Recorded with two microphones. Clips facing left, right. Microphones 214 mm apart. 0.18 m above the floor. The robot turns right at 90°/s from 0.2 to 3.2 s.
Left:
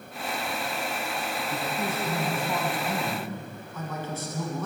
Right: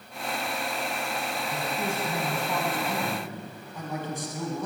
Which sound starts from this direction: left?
A man speaking, at 1.5 s.